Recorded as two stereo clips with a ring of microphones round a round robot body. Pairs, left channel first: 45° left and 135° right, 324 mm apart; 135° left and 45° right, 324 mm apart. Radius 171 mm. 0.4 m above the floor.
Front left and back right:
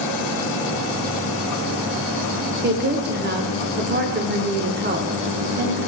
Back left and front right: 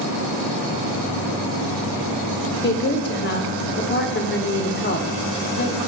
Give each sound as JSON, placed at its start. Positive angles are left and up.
{"t": 2.6, "sound": "a woman speaking", "azimuth_deg": 180, "distance_m": 1.4}